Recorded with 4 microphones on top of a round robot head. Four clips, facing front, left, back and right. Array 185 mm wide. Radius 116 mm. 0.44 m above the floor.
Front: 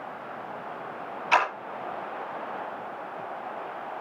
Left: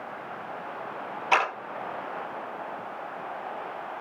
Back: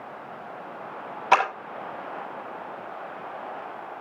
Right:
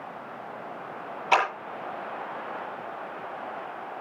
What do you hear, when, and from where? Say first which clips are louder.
1.3 s a clap: right 1 dB, back 3 dB; straight behind, 8.5 m